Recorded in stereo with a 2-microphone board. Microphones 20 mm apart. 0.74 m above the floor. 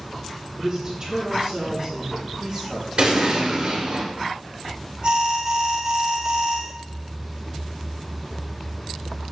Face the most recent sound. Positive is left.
turn(degrees=-50)  # may be behind; listen again after turning